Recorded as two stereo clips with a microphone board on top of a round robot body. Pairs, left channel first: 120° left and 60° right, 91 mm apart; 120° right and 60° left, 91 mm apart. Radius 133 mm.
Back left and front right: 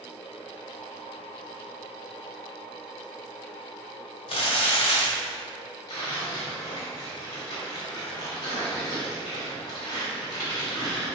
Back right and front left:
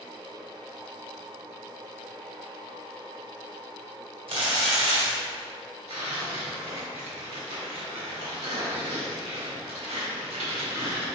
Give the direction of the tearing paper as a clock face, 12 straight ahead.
10 o'clock.